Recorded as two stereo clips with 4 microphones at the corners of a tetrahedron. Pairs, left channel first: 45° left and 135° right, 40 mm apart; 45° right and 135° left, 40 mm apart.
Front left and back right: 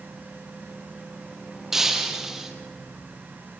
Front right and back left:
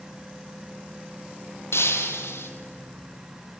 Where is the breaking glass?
55° right, 2.5 m.